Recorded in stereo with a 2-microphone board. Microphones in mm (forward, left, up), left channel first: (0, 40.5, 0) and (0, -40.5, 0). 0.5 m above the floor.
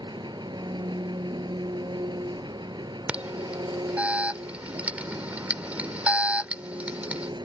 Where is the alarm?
15° right (ahead or behind).